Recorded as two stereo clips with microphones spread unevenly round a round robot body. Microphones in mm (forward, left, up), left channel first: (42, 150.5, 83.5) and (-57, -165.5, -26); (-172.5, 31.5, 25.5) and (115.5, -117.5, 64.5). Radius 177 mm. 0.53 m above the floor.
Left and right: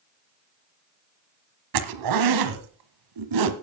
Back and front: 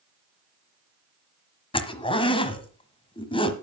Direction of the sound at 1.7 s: 135° right.